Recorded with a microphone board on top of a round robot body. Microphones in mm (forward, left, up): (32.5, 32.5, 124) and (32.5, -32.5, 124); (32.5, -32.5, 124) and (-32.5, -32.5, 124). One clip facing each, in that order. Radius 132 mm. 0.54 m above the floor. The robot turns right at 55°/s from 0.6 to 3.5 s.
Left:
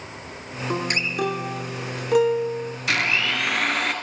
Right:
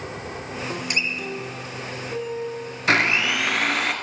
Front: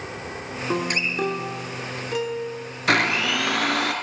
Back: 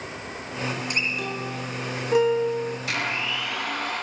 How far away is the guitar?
About 1.4 m.